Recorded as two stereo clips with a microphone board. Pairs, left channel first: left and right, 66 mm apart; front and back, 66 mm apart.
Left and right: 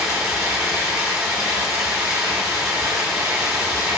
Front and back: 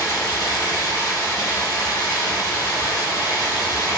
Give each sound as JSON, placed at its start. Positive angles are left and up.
{"t": 0.0, "sound": "running water", "azimuth_deg": -10, "distance_m": 3.5}